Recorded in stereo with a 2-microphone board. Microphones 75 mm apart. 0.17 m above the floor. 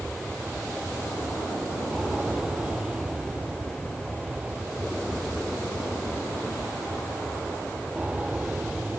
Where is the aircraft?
10° right (ahead or behind); by 9.0 s 15° right (ahead or behind).